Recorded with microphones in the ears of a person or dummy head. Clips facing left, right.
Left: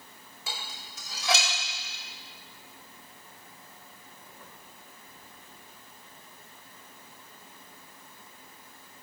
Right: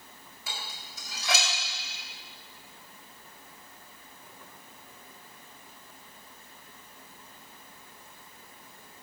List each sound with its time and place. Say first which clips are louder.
0.5 s dishes clattering: left 1 dB; 70° left (ahead or behind), 4.5 m